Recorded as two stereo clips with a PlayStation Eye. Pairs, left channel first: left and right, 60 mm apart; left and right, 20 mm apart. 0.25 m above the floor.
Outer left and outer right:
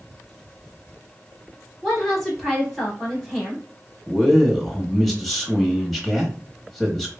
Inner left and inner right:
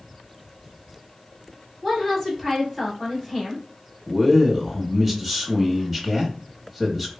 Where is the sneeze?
No sneeze in this recording.